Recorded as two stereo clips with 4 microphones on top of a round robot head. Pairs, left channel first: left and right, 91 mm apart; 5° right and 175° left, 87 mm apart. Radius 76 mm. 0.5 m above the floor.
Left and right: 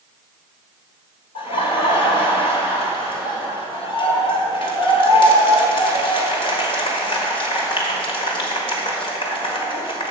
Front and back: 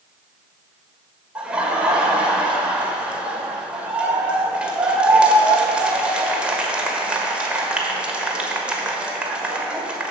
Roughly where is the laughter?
Left.